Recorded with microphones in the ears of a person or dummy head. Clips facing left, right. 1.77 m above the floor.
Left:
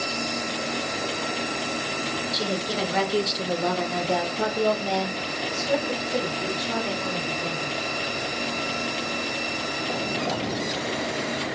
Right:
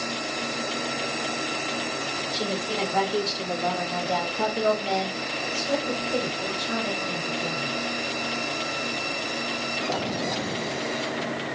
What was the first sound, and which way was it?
A woman speaking, 25° left (ahead or behind).